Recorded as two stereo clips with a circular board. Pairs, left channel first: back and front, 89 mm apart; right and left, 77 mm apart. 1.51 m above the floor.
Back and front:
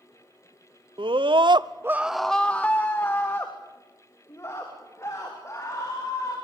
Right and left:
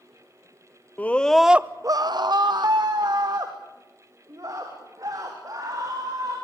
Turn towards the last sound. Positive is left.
turn(degrees=130)